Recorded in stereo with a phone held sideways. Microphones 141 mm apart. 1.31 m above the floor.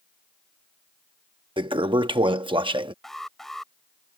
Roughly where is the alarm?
Centre.